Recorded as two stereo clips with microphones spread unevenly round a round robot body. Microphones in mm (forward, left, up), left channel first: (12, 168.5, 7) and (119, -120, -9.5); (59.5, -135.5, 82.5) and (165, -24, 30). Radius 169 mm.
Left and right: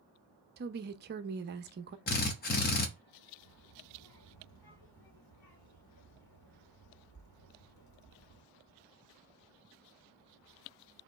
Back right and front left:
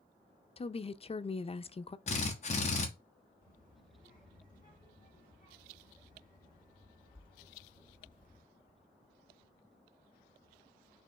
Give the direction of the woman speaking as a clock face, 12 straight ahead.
2 o'clock.